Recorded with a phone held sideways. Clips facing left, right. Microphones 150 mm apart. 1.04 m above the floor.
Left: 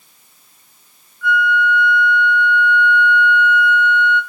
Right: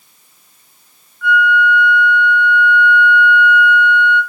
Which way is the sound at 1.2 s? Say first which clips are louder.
Right 3 dB; 65° right (ahead or behind).